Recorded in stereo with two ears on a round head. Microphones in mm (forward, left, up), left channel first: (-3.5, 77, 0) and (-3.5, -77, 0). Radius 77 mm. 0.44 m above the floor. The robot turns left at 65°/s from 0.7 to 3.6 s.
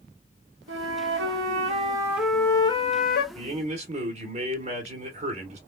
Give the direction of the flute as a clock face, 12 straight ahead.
3 o'clock.